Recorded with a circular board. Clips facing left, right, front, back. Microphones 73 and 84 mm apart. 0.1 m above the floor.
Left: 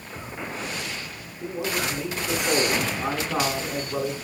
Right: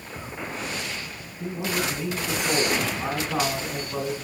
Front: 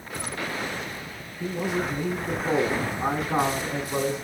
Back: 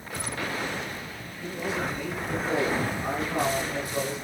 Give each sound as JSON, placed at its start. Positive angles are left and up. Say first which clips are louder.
{"t": 1.4, "sound": "a man speaking", "louder": "even, front 3 dB", "azimuth_deg": -15, "distance_m": 7.5}